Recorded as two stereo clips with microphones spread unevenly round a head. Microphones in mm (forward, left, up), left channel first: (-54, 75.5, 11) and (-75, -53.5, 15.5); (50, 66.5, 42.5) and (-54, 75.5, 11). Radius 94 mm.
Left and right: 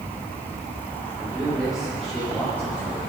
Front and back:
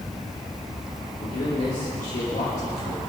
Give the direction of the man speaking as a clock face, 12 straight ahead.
12 o'clock.